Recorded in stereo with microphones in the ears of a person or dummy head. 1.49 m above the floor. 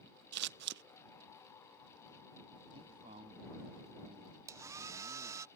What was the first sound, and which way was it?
Scissors, 70° right (ahead or behind).